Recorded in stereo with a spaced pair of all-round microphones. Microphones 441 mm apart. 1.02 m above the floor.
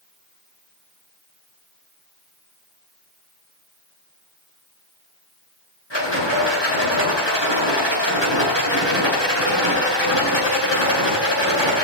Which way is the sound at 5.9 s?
85° left.